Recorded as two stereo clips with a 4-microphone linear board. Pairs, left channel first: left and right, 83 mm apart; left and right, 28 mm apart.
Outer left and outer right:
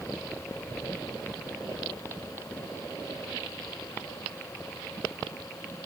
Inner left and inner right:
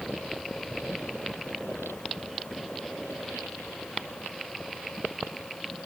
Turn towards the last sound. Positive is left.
No sound to turn to.